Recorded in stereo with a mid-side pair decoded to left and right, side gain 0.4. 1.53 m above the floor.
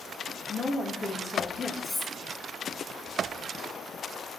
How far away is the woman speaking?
About 2.5 m.